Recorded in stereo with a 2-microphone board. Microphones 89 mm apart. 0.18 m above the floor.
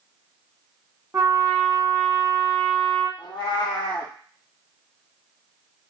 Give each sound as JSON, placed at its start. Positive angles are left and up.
{"t": 1.1, "sound": "a trumpet", "side_deg": -35, "distance_m": 0.7}
{"t": 3.2, "sound": "a cat meowing", "side_deg": 55, "distance_m": 0.6}